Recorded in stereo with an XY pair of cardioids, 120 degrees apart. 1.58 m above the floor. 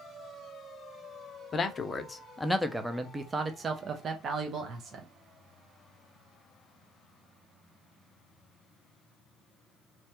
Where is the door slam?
I don't hear a door slam.